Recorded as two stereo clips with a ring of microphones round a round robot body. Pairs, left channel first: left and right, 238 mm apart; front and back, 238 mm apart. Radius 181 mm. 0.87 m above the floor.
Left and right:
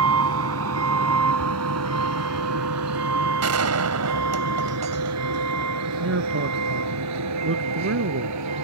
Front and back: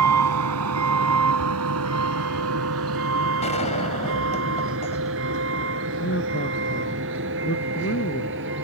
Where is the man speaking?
60° right.